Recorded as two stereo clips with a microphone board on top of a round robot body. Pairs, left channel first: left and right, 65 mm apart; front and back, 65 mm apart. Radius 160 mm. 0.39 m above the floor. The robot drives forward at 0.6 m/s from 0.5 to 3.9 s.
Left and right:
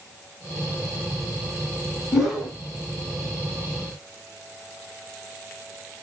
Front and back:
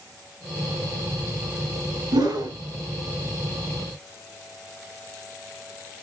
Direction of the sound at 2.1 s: 175° right.